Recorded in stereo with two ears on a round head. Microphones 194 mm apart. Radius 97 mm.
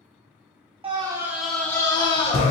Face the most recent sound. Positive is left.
turn(degrees=30)  # may be behind; listen again after turning